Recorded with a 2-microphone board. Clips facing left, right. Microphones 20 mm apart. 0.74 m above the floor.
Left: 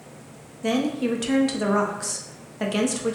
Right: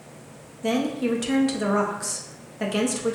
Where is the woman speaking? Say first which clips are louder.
Even; 15° left (ahead or behind), 0.6 m.